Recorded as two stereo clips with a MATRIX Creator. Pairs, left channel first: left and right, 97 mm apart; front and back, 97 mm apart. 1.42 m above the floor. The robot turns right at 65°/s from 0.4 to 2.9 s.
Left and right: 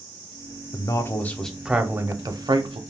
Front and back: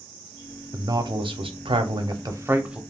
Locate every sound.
0.7 s a man speaking: 125° left, 0.5 m; by 2.8 s 100° right, 0.5 m